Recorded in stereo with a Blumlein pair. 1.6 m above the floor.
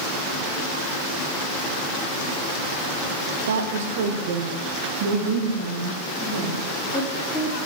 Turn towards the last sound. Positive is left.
turn(degrees=10)